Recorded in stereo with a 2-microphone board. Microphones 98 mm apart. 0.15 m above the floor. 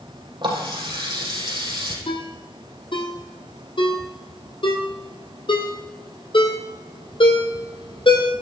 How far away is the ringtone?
About 3 m.